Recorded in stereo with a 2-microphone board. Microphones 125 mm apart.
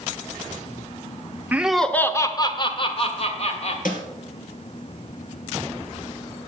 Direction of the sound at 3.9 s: 85° left.